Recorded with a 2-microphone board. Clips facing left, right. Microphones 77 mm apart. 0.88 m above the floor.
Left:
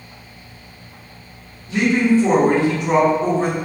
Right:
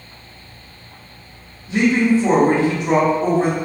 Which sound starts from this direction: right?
A woman speaking, at 1.7 s.